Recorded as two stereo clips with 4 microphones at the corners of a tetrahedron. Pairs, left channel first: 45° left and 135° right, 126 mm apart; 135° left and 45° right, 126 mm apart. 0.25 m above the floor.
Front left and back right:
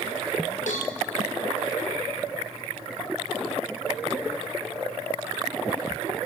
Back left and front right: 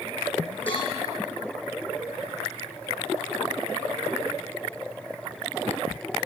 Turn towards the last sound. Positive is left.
turn(degrees=55)